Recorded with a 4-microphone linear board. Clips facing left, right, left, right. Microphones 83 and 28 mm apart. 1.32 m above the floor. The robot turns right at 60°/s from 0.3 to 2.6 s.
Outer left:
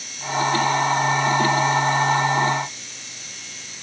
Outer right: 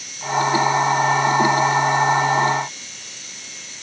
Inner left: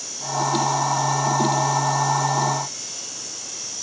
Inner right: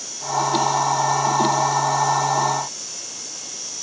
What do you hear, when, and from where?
Only background noise.